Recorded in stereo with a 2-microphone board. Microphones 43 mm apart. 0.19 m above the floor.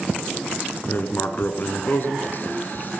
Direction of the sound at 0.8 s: 50° left (ahead or behind).